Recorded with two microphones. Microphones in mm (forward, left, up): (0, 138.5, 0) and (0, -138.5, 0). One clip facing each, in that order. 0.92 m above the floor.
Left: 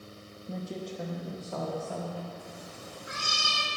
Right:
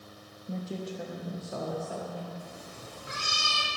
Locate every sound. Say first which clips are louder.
0.5 s a woman speaking: right 1 dB; 5° left (ahead or behind), 0.7 m; by 2.3 s 15° right (ahead or behind), 1.7 m
2.4 s a cat meowing: even; 20° right (ahead or behind), 3.5 m